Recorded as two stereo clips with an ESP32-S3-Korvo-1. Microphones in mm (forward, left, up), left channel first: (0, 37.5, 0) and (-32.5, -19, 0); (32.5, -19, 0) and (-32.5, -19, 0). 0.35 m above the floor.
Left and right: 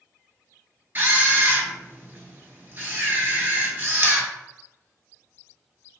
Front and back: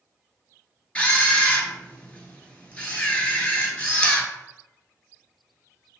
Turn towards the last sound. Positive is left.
turn(degrees=-70)